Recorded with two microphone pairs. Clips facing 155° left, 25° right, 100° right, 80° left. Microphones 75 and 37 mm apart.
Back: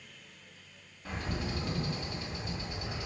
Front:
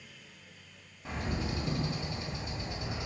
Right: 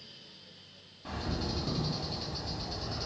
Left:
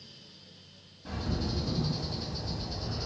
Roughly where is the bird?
Right.